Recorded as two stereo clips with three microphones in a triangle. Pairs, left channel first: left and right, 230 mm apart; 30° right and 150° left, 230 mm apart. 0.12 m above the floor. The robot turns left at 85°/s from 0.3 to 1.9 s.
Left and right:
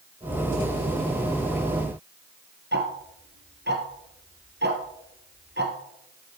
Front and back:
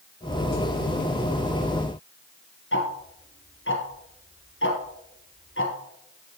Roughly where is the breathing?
I don't hear breathing.